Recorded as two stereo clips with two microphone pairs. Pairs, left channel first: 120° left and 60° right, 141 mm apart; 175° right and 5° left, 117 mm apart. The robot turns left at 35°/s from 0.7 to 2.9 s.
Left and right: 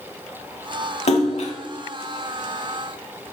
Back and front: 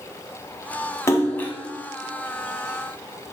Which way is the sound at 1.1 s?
125° left.